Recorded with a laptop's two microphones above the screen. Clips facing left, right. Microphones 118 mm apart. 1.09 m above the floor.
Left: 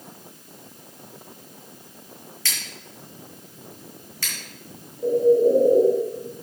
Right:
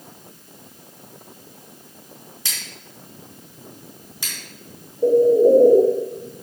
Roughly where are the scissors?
Centre.